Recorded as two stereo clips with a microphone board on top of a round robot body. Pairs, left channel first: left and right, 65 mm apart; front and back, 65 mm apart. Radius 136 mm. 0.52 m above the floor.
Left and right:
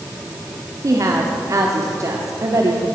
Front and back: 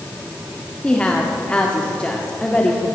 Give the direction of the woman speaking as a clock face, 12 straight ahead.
2 o'clock.